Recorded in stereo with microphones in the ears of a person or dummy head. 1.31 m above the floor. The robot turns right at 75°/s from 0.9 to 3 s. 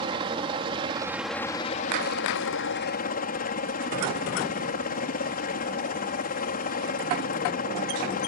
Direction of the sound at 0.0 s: 30° right.